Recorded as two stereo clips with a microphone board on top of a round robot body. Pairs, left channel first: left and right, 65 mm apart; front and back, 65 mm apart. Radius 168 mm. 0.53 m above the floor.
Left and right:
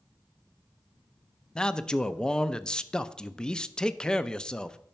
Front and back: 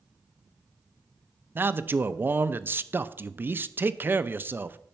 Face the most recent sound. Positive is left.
turn(degrees=160)